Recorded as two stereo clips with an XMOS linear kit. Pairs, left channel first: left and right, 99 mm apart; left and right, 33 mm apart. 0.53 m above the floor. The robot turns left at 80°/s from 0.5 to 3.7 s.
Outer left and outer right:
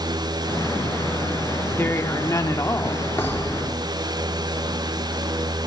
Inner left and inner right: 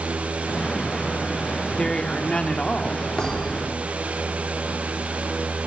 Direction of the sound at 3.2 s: 30° left.